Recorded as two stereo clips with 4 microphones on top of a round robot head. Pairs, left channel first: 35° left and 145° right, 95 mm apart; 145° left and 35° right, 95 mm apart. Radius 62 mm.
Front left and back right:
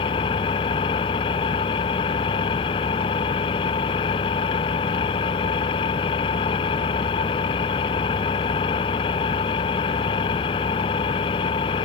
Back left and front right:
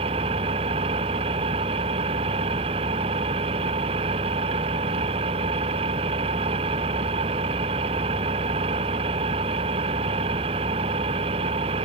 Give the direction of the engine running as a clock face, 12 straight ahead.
12 o'clock.